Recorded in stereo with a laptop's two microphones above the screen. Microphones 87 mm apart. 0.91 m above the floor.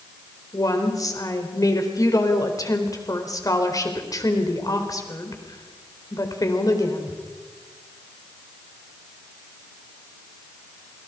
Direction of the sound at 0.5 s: 40° left (ahead or behind).